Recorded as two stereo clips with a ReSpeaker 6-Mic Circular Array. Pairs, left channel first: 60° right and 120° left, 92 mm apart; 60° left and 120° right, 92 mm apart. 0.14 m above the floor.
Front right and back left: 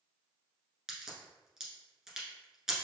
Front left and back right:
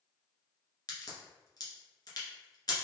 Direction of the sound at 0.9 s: 35° left.